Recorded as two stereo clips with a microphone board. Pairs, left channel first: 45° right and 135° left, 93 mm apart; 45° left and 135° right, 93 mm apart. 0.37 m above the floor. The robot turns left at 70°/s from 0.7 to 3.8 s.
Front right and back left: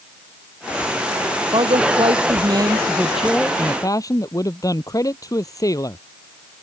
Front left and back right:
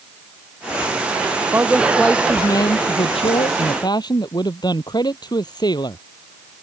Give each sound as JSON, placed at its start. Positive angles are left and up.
{"t": 1.5, "sound": "a man speaking", "azimuth_deg": 165}